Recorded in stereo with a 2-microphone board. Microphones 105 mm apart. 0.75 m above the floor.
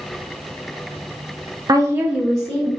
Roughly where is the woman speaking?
Right.